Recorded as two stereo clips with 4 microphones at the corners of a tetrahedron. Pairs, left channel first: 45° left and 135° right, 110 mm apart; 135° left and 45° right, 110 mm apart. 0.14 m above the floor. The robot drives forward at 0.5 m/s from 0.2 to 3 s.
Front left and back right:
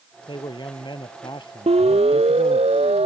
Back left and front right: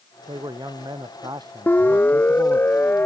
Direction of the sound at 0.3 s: 5° left.